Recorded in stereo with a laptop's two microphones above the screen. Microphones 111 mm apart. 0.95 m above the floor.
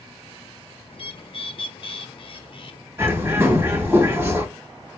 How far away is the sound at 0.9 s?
About 0.5 m.